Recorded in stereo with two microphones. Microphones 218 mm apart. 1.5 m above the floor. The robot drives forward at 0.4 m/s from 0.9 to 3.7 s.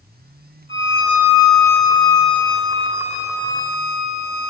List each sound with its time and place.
0.7 s a violin: 25° right (ahead or behind), 6 m; by 4.5 s 20° right (ahead or behind), 7 m